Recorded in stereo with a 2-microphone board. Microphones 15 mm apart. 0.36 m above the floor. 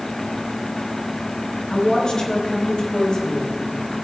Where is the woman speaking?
80° left, 5.5 m; by 4.0 s 55° left (ahead or behind), 3.5 m.